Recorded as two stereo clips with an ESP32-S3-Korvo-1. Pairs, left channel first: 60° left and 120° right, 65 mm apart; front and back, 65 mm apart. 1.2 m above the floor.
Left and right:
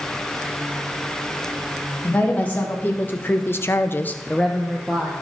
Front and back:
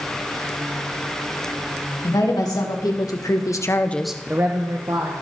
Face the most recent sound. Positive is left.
turn(degrees=160)